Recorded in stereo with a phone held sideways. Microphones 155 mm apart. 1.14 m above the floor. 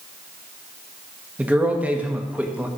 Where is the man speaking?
10° right (ahead or behind), 1.9 m.